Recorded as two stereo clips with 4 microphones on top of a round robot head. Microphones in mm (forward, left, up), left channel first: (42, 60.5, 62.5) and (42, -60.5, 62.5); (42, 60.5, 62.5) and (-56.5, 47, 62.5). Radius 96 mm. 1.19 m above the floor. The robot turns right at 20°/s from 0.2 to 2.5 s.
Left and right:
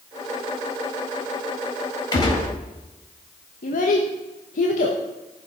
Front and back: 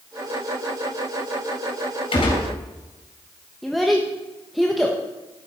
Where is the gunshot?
40° left, 4.5 m; by 2.5 s 45° left, 4.5 m.